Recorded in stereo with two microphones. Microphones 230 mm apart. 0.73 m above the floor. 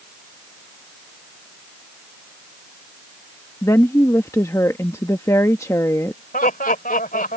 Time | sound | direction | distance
3.6 | a woman speaking | 15° left (ahead or behind) | ?
6.3 | laughter | 40° left (ahead or behind) | ?